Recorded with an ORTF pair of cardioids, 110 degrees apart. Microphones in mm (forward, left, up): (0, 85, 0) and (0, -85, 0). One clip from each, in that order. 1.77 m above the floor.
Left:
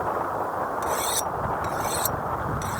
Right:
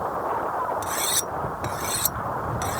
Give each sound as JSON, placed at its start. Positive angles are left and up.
{"t": 0.8, "sound": "cutlery clinking", "azimuth_deg": -30}